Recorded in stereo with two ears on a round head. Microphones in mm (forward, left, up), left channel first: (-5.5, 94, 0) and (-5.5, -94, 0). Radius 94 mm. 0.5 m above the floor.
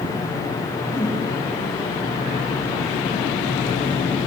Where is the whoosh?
10° left (ahead or behind), 1.0 m.